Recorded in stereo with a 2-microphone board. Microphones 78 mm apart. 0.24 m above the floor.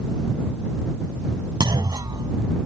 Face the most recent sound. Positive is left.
turn(degrees=-60)  # may be behind; listen again after turning